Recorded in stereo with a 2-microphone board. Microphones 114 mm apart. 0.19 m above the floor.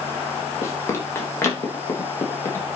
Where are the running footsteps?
25° left (ahead or behind), 4.5 m; by 2.6 s 20° left (ahead or behind), 5.5 m.